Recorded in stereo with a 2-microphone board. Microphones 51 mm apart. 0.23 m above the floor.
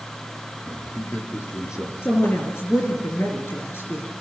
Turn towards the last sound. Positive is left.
turn(degrees=55)  # may be behind; listen again after turning